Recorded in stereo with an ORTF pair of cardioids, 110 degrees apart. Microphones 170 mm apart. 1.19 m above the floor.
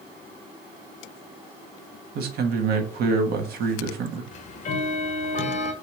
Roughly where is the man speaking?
Ahead right.